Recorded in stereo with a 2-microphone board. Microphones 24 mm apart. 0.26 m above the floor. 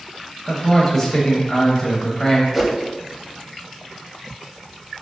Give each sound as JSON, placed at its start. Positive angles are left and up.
{"t": 0.5, "sound": "a man speaking", "side_deg": 10, "distance_m": 1.0}
{"t": 2.5, "sound": "a whoosh", "side_deg": -5, "distance_m": 0.7}